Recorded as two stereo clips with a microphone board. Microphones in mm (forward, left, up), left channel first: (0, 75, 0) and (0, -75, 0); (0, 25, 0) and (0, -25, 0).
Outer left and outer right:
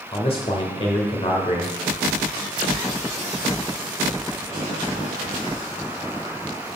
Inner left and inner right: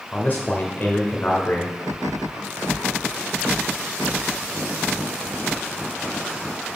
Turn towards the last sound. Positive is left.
turn(degrees=40)  # may be behind; listen again after turning